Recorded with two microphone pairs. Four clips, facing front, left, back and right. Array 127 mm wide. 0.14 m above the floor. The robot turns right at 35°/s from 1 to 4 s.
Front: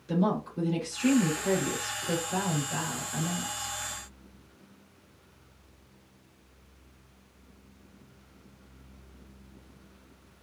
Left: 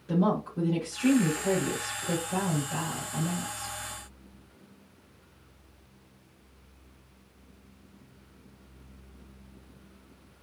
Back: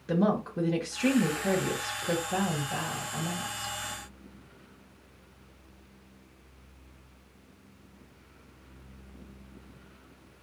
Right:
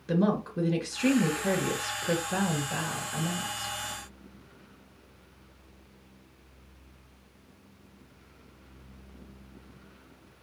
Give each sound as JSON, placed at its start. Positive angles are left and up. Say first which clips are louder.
{"t": 0.1, "sound": "a woman speaking", "louder": "even, back 1 dB", "azimuth_deg": -135, "distance_m": 3.0}